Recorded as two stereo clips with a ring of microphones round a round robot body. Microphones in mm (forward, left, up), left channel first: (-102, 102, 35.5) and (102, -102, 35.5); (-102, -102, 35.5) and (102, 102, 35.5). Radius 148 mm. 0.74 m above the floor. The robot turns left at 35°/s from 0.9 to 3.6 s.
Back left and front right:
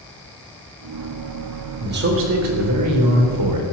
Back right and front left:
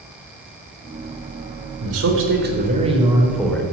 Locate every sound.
1.8 s a man speaking: 15° left, 3.5 m; by 3.6 s 50° right, 3.5 m